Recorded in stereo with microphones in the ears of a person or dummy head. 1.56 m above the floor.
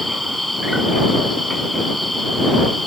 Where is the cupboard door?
No cupboard door in this recording.